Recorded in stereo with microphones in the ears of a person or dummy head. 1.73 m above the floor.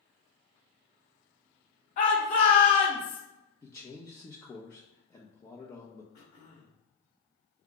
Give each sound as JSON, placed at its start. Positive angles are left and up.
{"t": 2.0, "sound": "a shout", "side_deg": 50, "distance_m": 0.9}
{"t": 3.6, "sound": "a man speaking", "side_deg": 15, "distance_m": 0.6}
{"t": 6.1, "sound": "throat clearing", "side_deg": 55, "distance_m": 1.9}